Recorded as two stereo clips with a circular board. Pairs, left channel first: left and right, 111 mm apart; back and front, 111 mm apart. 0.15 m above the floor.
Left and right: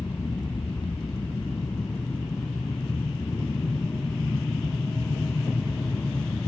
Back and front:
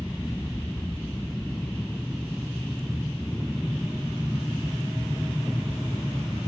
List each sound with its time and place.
0.0 s an aircraft: 90° left